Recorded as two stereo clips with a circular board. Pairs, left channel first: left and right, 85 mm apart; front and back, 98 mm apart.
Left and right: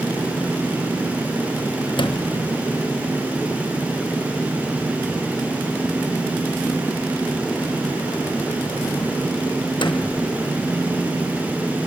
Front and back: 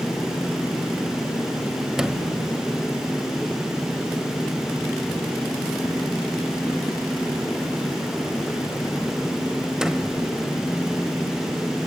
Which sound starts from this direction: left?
A sliding door, at 2.0 s.